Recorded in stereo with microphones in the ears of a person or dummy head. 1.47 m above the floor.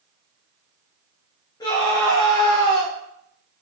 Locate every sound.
1.6 s a scream: 25° left (ahead or behind), 2.5 m